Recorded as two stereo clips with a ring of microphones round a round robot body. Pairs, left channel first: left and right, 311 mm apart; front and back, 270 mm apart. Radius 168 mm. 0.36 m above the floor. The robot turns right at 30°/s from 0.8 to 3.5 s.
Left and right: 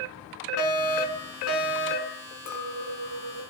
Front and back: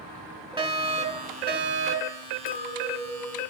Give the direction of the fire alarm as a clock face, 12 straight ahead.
8 o'clock.